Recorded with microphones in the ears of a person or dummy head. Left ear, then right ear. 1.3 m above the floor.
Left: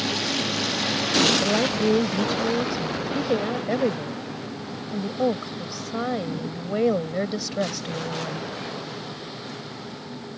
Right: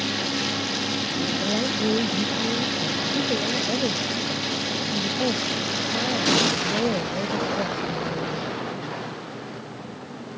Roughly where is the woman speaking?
Left.